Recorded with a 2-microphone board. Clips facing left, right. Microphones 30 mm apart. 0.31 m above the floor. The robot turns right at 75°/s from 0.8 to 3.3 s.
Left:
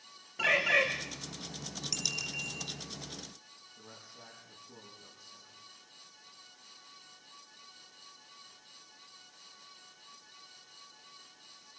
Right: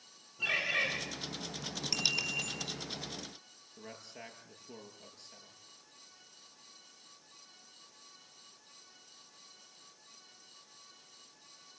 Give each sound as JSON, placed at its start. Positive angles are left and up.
{"t": 0.4, "sound": "a bird", "side_deg": 85, "distance_m": 6.0}
{"t": 1.9, "sound": "a bicycle bell", "azimuth_deg": -155, "distance_m": 4.5}
{"t": 3.8, "sound": "a man speaking", "side_deg": -75, "distance_m": 7.5}